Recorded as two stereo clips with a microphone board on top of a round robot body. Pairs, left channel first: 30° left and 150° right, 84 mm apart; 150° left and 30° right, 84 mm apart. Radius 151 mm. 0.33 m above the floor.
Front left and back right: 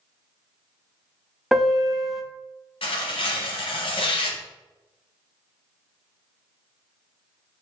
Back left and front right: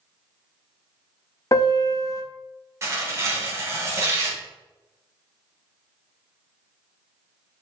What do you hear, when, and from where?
1.5 s a piano: 125° left, 0.7 m
2.8 s tearing paper: 30° left, 0.9 m